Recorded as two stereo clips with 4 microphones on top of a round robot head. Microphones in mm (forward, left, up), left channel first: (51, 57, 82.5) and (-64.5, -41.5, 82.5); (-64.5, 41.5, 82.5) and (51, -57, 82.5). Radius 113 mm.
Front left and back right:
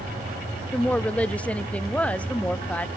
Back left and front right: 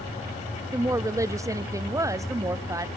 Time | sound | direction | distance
0.7 | a woman speaking | 25° right | 0.6 m